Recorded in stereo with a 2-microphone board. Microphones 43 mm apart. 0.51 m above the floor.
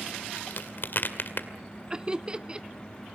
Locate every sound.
0.4 s a crack: 55° left (ahead or behind), 2 m
1.9 s laughter: 20° right (ahead or behind), 0.7 m